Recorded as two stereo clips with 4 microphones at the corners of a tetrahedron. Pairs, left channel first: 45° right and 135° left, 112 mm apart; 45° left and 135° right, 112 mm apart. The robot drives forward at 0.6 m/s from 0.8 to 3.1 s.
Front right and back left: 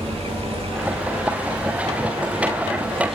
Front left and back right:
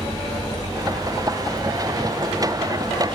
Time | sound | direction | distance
0.0 | running water | 170° left | 2.5 m